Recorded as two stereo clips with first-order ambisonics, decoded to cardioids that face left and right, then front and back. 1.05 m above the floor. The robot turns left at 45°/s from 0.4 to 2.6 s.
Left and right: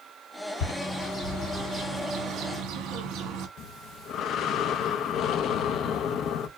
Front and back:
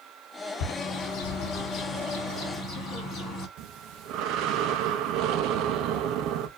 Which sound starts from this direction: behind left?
Breathing, at 3.6 s.